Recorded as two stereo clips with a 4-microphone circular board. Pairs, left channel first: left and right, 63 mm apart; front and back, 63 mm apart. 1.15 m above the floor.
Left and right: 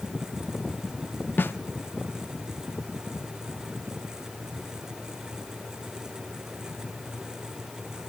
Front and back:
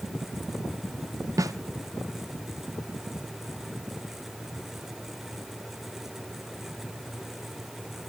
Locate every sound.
1.4 s a snare drum: 150° left, 0.6 m